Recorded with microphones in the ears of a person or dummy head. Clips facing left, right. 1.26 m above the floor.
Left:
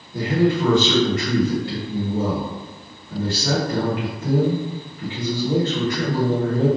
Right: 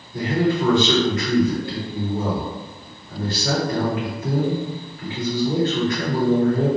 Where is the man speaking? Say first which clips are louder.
Left 1 dB; 60° left (ahead or behind), 1.2 m.